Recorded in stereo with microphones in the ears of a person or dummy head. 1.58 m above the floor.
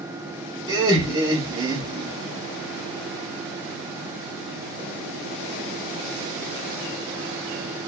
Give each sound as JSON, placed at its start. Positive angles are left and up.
{"t": 0.7, "sound": "laughter", "side_deg": -25, "distance_m": 0.8}